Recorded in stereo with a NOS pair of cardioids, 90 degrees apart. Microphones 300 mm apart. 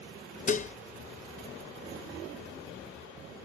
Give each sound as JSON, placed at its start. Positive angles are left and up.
{"t": 0.5, "sound": "dishes clattering", "azimuth_deg": 25}